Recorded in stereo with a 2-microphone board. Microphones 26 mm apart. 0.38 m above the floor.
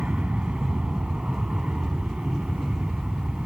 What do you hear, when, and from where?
0.0 s an aircraft: 65° right (ahead or behind)